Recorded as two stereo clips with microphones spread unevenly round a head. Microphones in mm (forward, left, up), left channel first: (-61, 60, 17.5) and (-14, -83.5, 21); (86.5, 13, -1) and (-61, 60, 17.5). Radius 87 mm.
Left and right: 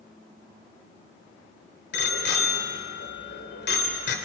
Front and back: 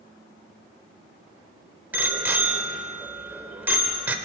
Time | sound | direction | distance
1.9 | a bicycle bell | 85° left | 2.5 m